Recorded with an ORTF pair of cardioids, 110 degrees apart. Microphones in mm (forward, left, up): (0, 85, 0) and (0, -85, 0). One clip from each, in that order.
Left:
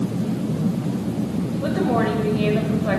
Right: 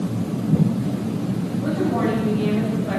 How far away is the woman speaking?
About 6.5 m.